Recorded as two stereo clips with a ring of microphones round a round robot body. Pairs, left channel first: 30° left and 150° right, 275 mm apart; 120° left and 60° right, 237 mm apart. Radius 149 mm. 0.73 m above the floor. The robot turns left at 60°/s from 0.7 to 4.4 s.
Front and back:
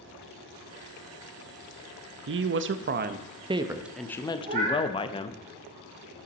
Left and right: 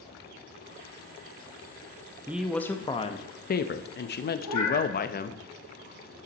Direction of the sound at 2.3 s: 140° right.